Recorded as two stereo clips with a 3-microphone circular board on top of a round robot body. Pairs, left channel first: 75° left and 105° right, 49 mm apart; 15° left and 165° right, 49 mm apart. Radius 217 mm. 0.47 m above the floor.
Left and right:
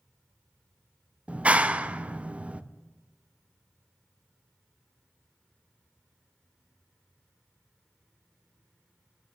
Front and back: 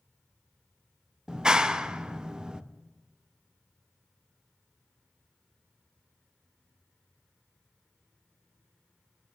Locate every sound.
1.3 s a clap: 115° right, 1.1 m